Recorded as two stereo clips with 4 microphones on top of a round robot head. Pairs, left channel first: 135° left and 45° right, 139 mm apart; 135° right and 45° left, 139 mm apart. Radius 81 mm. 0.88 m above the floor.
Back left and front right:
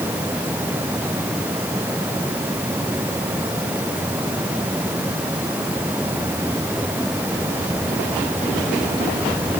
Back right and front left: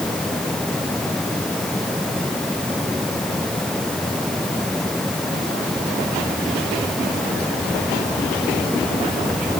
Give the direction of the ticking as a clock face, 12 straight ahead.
No ticking in this recording.